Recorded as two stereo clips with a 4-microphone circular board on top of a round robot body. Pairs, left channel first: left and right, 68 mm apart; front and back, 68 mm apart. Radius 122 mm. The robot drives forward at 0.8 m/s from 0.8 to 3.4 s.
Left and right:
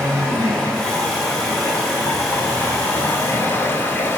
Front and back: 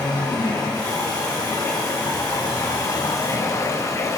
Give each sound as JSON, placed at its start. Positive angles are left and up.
{"t": 0.0, "sound": "running water", "azimuth_deg": 10, "distance_m": 3.5}